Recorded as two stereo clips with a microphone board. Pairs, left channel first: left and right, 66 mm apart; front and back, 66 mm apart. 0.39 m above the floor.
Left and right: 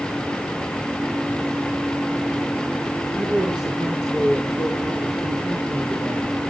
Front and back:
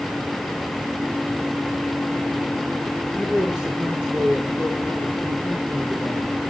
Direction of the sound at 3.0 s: 105° right.